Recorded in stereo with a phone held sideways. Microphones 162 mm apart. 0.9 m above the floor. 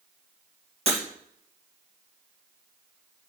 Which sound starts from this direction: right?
Breaking glass, at 0.9 s.